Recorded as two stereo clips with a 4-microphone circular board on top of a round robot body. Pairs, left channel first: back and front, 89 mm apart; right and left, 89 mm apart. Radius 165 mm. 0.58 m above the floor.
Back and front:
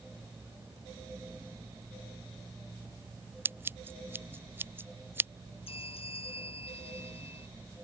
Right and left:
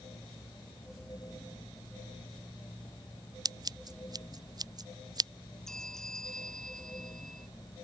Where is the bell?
175° right.